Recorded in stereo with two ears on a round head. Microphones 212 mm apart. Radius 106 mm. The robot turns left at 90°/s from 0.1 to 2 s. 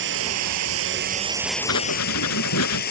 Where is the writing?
80° left; by 2.8 s 70° left (ahead or behind).